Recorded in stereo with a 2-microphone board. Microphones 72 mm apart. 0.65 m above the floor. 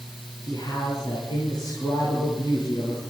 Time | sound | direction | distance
0.4 | a man speaking | 70° left (ahead or behind) | 9 m